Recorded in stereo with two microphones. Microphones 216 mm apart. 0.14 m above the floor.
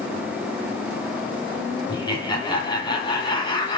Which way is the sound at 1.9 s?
20° left (ahead or behind).